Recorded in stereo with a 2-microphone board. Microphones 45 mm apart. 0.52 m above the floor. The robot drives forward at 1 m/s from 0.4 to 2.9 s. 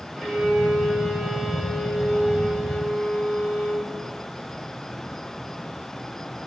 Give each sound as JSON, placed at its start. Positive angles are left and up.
{"t": 0.2, "sound": "a violin", "side_deg": 0, "distance_m": 1.2}